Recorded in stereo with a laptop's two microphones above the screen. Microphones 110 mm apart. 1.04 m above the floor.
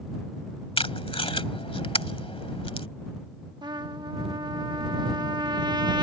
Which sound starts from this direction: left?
Tape being pulled, at 0.8 s.